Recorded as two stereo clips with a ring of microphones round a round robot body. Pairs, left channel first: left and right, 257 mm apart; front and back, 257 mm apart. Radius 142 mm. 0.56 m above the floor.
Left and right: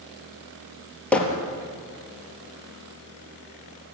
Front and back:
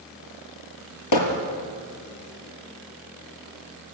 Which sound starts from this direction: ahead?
Hammering, at 1.1 s.